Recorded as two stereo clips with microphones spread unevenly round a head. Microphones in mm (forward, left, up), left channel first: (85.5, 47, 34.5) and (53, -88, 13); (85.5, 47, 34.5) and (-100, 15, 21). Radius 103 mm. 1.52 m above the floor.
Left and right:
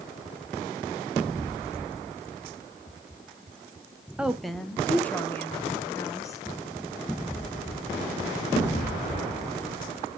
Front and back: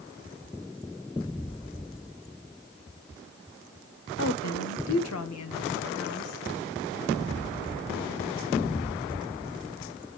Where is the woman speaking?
20° right, 1.1 m; by 6.4 s 10° left, 2.5 m.